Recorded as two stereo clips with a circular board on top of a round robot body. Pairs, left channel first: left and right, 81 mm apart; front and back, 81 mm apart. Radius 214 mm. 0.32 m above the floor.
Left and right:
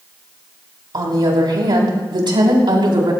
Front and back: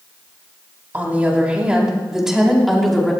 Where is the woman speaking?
115° right, 4 m; by 3.1 s 85° right, 4.5 m.